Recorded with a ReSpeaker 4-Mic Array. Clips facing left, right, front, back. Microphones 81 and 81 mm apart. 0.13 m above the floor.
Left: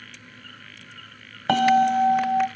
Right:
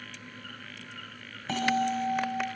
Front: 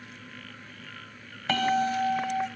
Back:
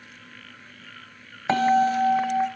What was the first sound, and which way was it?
A bell, 125° left.